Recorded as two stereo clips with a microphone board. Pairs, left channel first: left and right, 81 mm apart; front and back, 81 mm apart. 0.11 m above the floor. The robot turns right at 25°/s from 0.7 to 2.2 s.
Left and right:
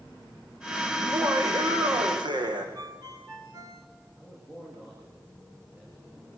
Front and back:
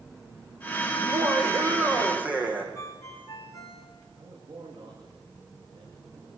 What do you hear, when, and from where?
1.0 s laughter: 140° right, 6.5 m; by 2.6 s 110° right, 6.5 m
2.8 s a ringtone: 55° right, 7 m
4.2 s a man speaking: 160° right, 9.5 m